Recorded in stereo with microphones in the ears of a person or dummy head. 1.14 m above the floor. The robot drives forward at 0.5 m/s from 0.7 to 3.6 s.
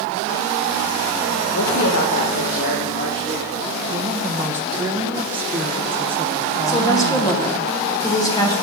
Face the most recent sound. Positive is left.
turn(degrees=15)  # may be behind; listen again after turning